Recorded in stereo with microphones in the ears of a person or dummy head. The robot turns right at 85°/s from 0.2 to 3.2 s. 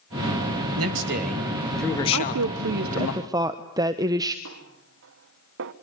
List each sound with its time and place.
0.8 s a man speaking: 85° right, 3 m; by 3.1 s 65° left (ahead or behind), 3 m
2.1 s a woman speaking: 115° right, 1.1 m; by 4.3 s 20° right, 1.1 m
4.5 s a snare drum: 60° right (ahead or behind), 1.2 m